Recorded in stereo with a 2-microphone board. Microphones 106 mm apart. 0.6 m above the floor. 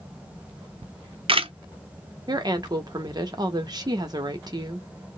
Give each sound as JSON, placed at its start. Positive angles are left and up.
{"t": 0.8, "sound": "a camera shutter", "side_deg": -60, "distance_m": 0.5}
{"t": 2.3, "sound": "a woman speaking", "side_deg": -40, "distance_m": 0.8}